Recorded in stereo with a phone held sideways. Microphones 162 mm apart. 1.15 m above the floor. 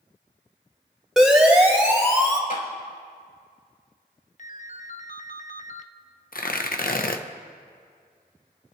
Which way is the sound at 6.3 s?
60° left (ahead or behind).